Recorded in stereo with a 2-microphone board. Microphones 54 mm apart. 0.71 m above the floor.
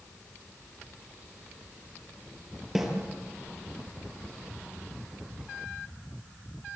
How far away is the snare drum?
About 5.5 m.